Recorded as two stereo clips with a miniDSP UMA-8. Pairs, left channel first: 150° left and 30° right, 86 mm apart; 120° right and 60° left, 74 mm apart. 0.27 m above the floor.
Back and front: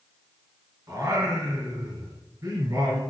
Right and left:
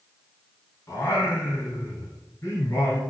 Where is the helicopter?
No helicopter in this recording.